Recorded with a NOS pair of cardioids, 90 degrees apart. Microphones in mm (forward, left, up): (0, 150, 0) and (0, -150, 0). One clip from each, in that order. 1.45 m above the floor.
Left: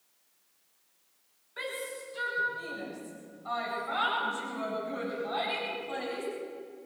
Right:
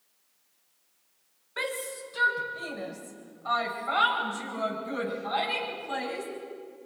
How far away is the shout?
About 7.5 m.